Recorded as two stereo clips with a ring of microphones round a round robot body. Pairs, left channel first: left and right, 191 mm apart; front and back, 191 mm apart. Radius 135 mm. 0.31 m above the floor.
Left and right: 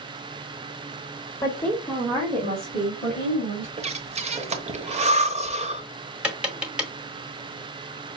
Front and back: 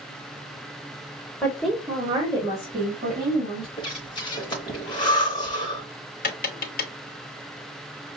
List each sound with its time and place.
1.4 s a woman speaking: 60° left, 1.3 m; by 3.7 s 130° right, 3 m
3.8 s breathing: 55° right, 0.9 m
6.2 s tapping: 5° right, 1.2 m